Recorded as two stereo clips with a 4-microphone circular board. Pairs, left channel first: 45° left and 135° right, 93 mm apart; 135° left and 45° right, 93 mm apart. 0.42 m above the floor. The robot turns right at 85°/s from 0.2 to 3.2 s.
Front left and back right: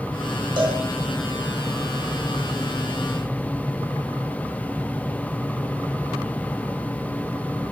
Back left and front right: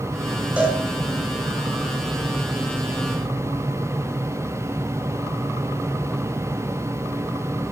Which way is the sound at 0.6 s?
120° right.